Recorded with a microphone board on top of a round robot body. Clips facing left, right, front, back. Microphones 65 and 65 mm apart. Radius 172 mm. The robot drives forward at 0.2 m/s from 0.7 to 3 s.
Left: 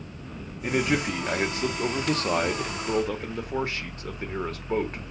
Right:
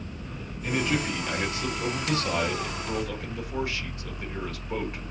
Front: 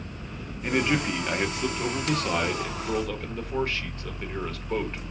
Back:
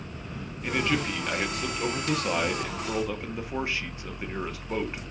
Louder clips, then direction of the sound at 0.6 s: Left 2 dB, front 2 dB; 70° left.